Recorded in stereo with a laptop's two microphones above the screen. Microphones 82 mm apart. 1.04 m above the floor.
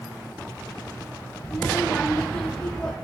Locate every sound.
1.4 s a child speaking: 30° left (ahead or behind), 2.5 m; by 2.9 s 10° left (ahead or behind), 3 m